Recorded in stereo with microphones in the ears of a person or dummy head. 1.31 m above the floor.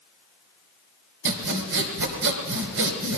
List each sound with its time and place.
1.2 s sawing: 75° right (ahead or behind), 3 m